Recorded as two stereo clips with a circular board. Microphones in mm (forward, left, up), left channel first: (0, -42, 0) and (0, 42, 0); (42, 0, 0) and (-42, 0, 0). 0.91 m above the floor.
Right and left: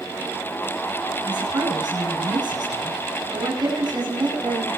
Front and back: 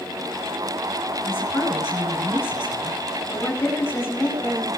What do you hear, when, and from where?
1.2 s a woman speaking: 60° left, 9.5 m